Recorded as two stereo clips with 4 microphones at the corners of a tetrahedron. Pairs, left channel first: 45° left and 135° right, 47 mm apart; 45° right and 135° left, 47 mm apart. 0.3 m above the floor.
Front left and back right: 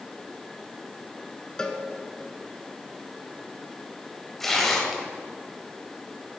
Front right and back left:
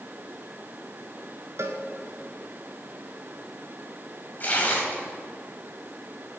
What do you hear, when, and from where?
1.6 s a cowbell: 120° left, 0.9 m
4.4 s tearing paper: 35° right, 1.8 m